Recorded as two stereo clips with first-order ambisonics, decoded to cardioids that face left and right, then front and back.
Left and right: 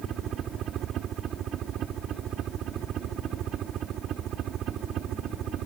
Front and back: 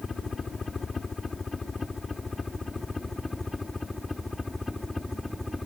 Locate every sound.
0.0 s a helicopter: 65° right; by 5.7 s 80° right